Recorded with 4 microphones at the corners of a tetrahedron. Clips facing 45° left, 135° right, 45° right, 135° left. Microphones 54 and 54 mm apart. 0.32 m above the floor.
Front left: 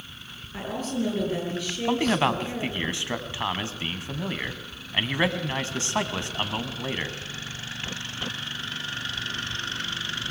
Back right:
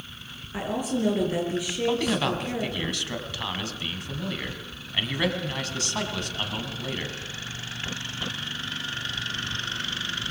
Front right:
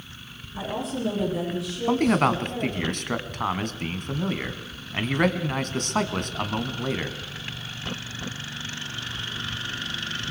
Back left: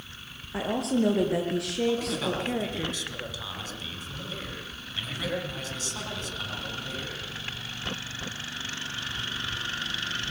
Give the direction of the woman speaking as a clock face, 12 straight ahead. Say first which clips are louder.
Back right 2 dB, back left 3 dB; 7 o'clock.